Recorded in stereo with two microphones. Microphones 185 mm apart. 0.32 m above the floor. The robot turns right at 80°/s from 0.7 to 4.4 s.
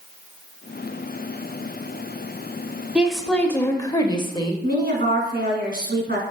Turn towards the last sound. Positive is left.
turn(degrees=-65)  # may be behind; listen again after turning